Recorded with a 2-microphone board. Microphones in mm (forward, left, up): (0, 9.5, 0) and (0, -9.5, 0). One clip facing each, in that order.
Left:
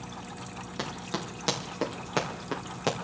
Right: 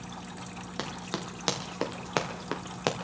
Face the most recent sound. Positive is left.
turn(degrees=-20)  # may be behind; listen again after turning